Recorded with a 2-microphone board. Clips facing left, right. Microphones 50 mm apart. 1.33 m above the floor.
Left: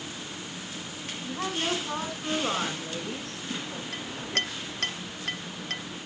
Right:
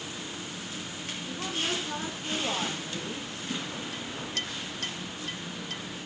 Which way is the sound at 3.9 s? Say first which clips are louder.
Left 3 dB; 50° left (ahead or behind).